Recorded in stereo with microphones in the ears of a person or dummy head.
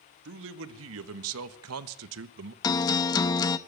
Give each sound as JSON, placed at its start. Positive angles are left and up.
{"t": 0.2, "sound": "a man speaking", "side_deg": -70, "distance_m": 1.9}
{"t": 2.6, "sound": "a guitar", "side_deg": 20, "distance_m": 0.7}